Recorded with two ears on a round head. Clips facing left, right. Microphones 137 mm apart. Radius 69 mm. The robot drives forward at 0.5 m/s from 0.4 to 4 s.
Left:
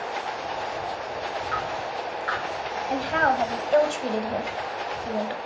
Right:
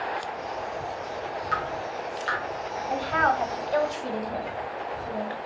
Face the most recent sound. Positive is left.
turn(degrees=35)  # may be behind; listen again after turning